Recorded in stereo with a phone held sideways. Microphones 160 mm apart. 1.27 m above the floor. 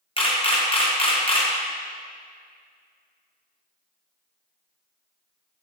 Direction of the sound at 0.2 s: 35° left (ahead or behind).